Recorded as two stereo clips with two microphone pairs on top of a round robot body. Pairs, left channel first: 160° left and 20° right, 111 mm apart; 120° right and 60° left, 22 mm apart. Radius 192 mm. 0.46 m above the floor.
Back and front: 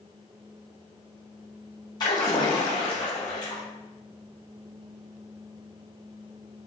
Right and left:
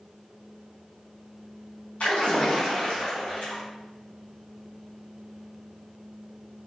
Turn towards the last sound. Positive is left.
turn(degrees=-145)